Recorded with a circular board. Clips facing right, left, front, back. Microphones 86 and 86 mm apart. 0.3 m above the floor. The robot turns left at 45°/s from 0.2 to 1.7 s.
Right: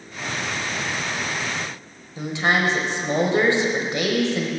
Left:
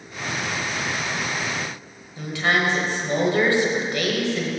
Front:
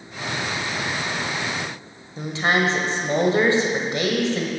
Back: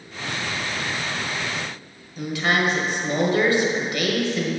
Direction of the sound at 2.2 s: 40° right.